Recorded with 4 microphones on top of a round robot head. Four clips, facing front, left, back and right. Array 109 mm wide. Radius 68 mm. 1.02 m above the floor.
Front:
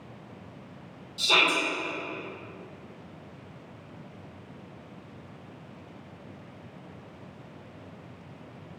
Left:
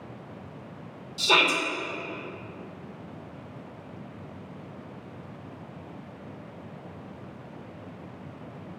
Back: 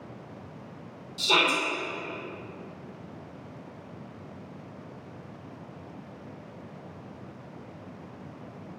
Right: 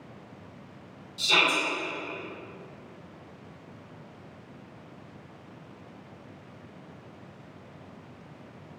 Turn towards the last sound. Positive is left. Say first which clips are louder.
# left 3 dB, even
turn(degrees=95)